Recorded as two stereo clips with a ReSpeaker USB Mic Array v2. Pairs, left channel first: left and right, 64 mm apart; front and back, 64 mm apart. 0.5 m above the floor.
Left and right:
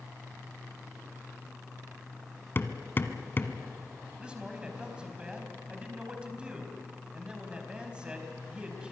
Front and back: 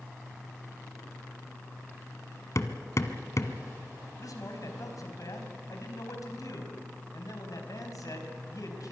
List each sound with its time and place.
2.5 s hammering: 35° left, 1.2 m
4.2 s a man speaking: 15° right, 4 m